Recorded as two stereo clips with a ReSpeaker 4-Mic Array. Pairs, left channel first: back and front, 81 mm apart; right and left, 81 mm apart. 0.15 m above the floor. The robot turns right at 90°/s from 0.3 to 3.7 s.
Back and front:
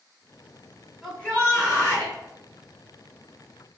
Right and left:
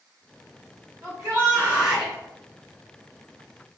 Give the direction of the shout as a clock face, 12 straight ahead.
9 o'clock.